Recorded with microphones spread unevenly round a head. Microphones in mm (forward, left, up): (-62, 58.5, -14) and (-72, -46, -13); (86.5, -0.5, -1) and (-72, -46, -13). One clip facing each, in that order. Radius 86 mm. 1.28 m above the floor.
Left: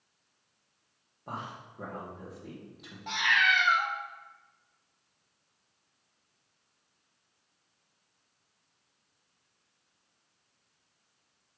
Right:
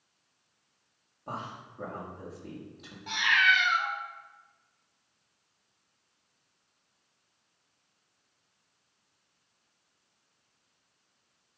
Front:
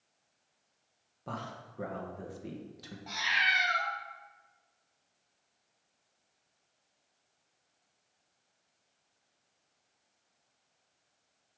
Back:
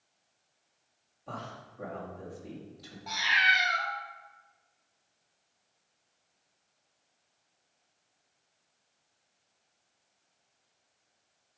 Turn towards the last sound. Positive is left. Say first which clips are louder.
# right 1 dB, back 4 dB
turn(degrees=105)